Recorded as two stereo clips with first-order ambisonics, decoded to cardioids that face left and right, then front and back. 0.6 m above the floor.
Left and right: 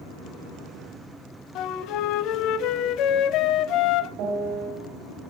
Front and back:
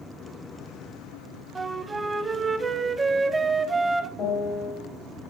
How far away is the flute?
About 0.6 m.